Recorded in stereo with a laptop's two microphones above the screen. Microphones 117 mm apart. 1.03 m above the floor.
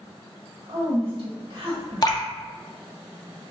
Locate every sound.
0.7 s a woman speaking: 50° right (ahead or behind), 1.3 m
2.0 s dripping: 35° left (ahead or behind), 0.7 m